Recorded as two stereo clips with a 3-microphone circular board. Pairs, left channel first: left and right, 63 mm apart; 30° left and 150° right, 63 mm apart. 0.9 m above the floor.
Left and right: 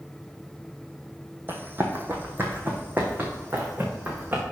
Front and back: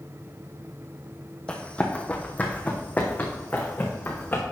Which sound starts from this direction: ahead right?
Running footsteps, at 1.5 s.